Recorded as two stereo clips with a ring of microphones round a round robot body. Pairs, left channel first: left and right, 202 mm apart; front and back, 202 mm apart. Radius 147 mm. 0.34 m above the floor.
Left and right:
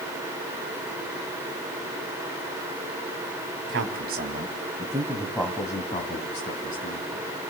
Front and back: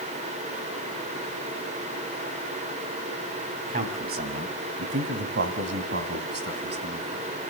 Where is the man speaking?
125° right, 2.5 m; by 7.3 s 140° left, 4 m.